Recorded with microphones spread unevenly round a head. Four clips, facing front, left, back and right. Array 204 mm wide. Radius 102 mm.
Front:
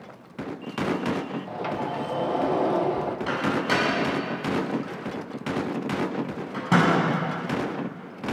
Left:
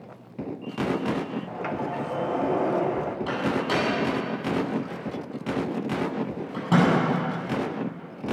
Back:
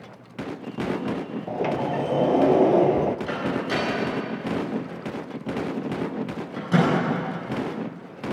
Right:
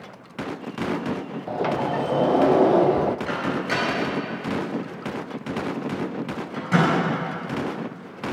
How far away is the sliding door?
About 0.6 m.